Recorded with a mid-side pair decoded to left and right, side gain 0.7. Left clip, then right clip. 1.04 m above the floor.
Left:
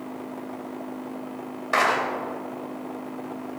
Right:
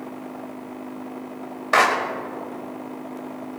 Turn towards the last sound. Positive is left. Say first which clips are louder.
# right 4 dB
turn(degrees=-20)